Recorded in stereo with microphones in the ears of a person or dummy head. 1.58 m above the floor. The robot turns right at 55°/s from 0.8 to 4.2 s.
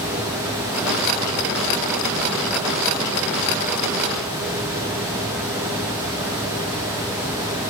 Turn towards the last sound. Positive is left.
No sound to turn to.